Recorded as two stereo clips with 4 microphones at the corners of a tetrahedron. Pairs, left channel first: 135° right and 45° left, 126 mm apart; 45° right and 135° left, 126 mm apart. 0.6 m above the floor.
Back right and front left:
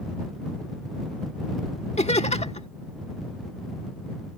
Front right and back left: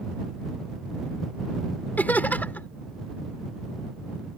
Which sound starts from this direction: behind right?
Laughter, at 2.0 s.